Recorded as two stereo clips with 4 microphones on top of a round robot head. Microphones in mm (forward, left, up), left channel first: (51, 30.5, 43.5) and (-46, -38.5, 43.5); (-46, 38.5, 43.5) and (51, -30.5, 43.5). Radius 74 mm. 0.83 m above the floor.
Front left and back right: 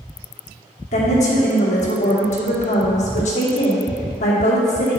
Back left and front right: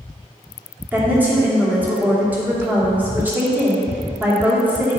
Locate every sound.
0.9 s a woman speaking: 40° left, 2.5 m